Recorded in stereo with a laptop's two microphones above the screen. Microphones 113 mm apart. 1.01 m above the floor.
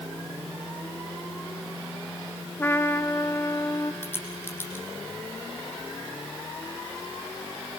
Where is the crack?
20° left (ahead or behind), 6.5 m.